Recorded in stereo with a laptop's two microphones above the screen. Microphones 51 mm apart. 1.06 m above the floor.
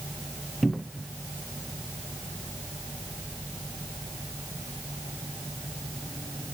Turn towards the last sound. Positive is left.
turn(degrees=0)  # may be behind; listen again after turning